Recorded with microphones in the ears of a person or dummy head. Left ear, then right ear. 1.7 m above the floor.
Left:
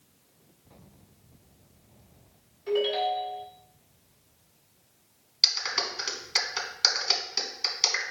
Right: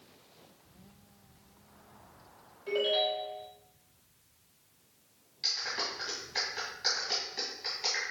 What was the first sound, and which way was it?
A ringtone, 5° left (ahead or behind).